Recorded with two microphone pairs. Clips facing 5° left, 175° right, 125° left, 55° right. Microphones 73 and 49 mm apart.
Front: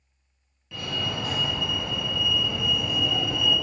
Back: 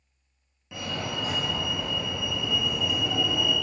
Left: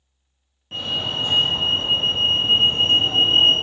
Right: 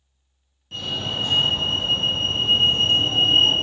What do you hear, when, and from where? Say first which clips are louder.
0.7 s a fire alarm: front 1 dB, left 2 dB; 140° left, 2.0 m